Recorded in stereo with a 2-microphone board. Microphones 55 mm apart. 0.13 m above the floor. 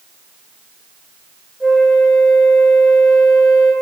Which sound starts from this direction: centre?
A flute, at 1.6 s.